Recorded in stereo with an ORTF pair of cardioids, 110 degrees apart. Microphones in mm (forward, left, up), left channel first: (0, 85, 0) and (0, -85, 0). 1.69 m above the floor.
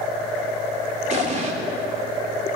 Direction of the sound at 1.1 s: 45° right.